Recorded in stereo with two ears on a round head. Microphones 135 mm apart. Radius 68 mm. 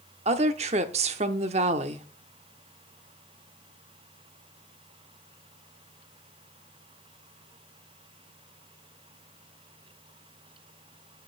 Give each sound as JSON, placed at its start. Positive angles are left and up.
{"t": 0.2, "sound": "a woman speaking", "side_deg": -45, "distance_m": 0.8}